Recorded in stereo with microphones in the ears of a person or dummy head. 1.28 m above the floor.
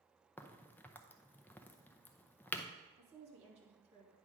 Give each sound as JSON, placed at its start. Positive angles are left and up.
{"t": 0.4, "sound": "a crack", "side_deg": 10, "distance_m": 0.6}
{"t": 3.0, "sound": "a woman speaking", "side_deg": -35, "distance_m": 3.0}